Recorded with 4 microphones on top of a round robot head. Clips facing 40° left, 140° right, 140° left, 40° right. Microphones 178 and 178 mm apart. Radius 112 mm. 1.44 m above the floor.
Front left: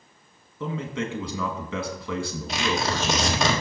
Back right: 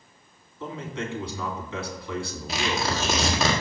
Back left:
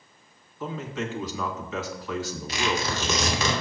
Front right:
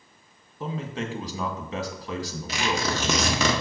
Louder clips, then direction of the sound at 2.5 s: Front left 1 dB, front right 1 dB; 55° right.